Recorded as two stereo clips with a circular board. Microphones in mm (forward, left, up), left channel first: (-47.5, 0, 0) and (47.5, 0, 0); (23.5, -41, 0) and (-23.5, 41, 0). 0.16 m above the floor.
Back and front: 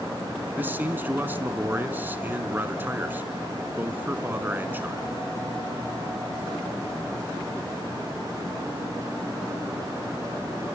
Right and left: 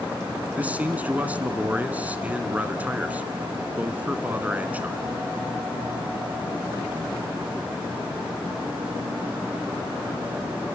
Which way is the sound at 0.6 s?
55° left.